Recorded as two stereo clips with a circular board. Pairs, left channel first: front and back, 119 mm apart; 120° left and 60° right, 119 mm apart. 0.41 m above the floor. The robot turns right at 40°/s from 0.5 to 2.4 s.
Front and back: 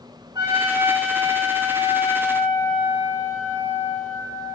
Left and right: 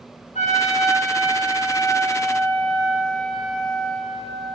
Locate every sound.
0.3 s a trumpet: 125° left, 4 m; by 4.6 s 160° right, 4 m